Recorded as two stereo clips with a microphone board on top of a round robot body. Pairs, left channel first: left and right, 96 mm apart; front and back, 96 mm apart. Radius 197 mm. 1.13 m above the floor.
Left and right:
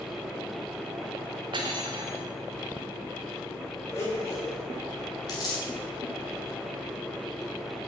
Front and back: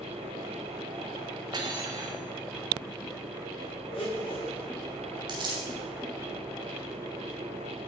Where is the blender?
30° left, 4 m.